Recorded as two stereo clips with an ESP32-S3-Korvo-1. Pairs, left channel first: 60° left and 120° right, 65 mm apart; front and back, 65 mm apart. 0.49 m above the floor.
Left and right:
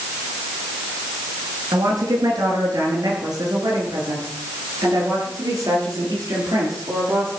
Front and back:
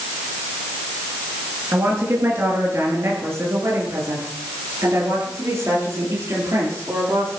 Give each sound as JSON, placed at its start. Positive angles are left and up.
{"t": 1.7, "sound": "a woman speaking", "azimuth_deg": -130, "distance_m": 7.0}